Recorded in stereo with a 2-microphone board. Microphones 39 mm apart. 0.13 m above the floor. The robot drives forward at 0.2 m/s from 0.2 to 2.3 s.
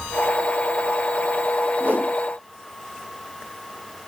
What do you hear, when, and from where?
1.8 s a whoosh: 50° right (ahead or behind), 3.5 m